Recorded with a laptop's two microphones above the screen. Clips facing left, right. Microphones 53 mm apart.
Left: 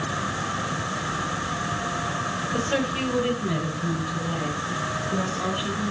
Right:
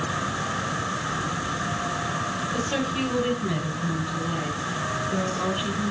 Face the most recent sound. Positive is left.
turn(degrees=0)  # may be behind; listen again after turning